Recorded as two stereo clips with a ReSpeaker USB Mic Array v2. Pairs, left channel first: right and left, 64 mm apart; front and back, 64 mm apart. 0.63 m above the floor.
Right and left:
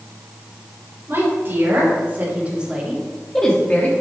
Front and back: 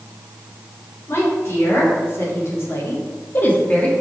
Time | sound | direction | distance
1.1 | a woman speaking | 45° left | 3 m